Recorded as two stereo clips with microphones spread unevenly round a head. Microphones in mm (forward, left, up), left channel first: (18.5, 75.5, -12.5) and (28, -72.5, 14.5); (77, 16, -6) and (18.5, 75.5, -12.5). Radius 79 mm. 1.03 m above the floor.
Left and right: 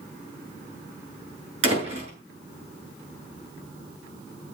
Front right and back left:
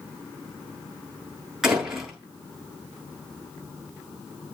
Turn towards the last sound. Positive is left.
turn(degrees=-140)